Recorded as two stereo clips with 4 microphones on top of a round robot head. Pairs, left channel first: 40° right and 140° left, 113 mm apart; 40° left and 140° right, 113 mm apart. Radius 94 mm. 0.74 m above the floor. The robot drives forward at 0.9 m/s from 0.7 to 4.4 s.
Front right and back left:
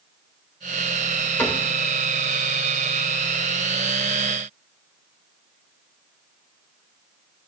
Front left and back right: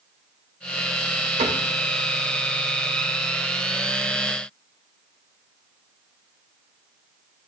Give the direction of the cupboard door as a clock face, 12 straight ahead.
4 o'clock.